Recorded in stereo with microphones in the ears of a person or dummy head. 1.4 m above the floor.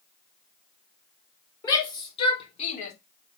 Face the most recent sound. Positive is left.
turn(degrees=55)  # may be behind; listen again after turning